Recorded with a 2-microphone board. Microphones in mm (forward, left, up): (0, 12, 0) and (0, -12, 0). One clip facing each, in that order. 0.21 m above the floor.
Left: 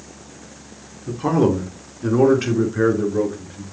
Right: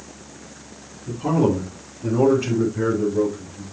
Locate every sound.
1.1 s a man speaking: 50° left (ahead or behind), 4 m; by 3.6 s 60° left (ahead or behind), 4 m